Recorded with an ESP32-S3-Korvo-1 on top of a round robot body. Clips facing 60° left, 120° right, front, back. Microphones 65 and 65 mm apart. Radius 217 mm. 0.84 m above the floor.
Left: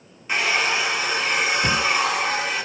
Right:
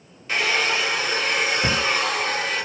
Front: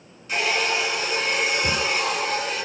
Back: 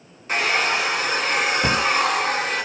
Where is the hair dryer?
135° left, 3 m.